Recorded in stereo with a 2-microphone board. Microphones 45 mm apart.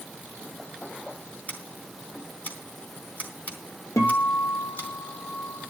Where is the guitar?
85° left, 3 m.